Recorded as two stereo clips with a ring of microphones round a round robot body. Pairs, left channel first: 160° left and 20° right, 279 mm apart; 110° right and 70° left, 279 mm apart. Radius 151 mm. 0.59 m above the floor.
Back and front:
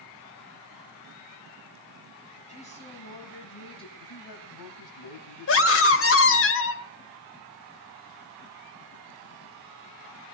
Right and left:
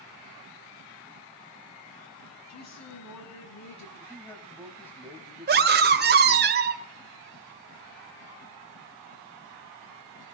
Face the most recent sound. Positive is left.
turn(degrees=120)